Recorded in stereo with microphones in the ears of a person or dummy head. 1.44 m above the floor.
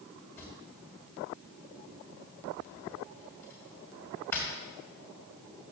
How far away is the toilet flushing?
I don't hear a toilet flushing.